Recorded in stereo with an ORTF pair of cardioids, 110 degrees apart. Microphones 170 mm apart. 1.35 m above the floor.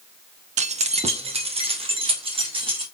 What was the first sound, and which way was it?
Keys jangling, 45° right.